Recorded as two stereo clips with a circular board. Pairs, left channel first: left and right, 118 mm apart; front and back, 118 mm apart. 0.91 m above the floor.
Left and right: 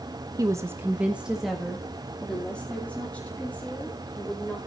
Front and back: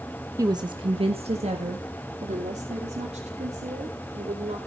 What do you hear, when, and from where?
0.4 s a woman speaking: 135° right, 1.1 m; by 4.6 s 165° left, 4 m